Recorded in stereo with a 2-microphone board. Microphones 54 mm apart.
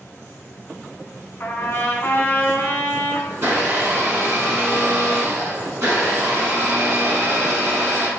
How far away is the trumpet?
About 0.6 m.